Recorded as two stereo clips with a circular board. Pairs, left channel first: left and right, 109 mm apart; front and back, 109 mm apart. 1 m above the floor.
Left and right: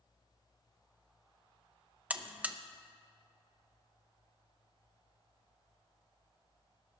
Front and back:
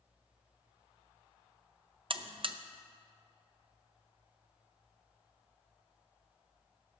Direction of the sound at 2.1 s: 165° right.